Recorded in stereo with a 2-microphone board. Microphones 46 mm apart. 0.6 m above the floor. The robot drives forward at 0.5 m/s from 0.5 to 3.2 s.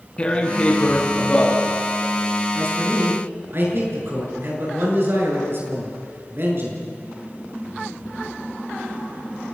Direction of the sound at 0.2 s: 20° left (ahead or behind).